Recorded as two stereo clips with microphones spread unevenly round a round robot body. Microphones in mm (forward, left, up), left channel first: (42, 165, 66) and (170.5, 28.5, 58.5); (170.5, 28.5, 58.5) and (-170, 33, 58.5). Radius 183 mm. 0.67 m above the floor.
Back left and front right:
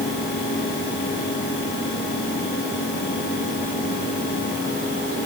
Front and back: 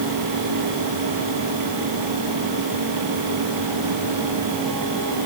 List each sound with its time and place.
Only background noise.